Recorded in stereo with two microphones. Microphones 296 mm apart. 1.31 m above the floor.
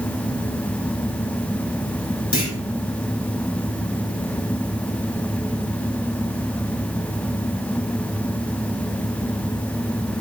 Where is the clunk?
70° left (ahead or behind), 3.5 m.